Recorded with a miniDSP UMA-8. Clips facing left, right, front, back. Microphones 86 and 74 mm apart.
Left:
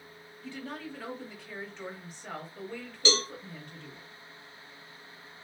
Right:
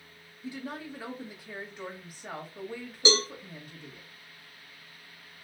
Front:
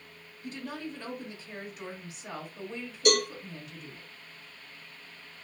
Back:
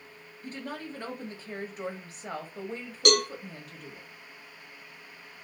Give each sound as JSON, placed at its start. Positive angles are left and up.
{"t": 0.4, "sound": "a woman speaking", "azimuth_deg": -165, "distance_m": 1.2}
{"t": 3.0, "sound": "a cowbell", "azimuth_deg": -160, "distance_m": 1.2}